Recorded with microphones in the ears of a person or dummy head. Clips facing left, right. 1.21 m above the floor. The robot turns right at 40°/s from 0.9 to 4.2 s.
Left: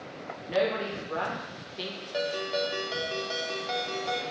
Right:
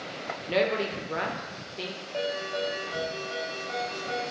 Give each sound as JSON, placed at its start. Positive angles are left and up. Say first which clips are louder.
{"t": 0.5, "sound": "a woman speaking", "louder": "right 1 dB", "azimuth_deg": -40, "distance_m": 0.7}
{"t": 2.1, "sound": "a ringtone", "louder": "left 1 dB", "azimuth_deg": 20, "distance_m": 0.5}